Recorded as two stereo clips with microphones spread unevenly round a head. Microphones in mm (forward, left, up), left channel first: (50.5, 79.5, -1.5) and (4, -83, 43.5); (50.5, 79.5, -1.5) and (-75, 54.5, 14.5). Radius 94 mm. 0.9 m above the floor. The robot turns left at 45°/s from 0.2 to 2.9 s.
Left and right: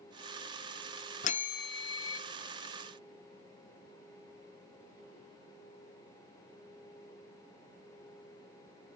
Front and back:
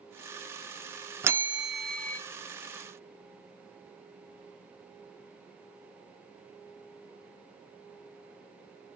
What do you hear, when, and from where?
1.2 s a bell: 130° left, 0.6 m; by 2.2 s 90° left, 0.6 m